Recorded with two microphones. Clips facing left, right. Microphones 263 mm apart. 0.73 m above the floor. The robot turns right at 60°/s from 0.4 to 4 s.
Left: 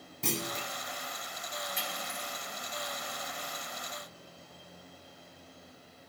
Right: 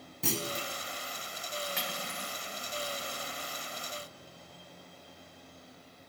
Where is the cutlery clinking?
100° right, 2.5 m; by 2.4 s 65° right, 2.5 m.